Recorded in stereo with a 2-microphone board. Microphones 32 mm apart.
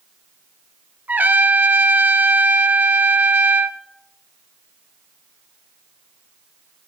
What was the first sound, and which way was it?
A trumpet, 65° right (ahead or behind).